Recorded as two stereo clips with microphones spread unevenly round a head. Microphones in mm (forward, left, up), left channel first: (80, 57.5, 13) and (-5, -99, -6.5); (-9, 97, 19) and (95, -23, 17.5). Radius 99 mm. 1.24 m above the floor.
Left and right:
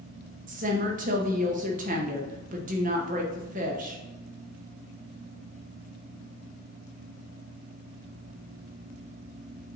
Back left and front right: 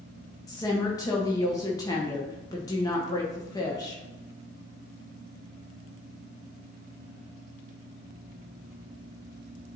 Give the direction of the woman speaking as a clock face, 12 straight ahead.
5 o'clock.